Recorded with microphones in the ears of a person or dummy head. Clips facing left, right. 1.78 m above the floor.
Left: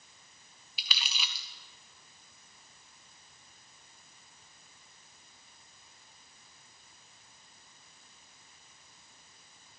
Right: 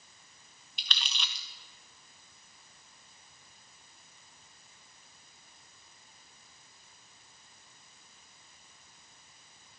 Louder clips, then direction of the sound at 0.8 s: Even; 5° left (ahead or behind).